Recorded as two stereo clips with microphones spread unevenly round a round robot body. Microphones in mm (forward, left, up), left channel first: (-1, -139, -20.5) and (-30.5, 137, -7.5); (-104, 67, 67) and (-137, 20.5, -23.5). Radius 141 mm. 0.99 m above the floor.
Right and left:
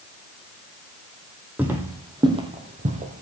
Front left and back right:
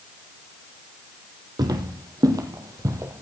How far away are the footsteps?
About 2.5 m.